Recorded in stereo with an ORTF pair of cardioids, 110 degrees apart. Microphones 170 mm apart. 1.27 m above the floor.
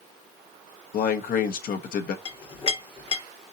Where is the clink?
35° left, 1.3 m.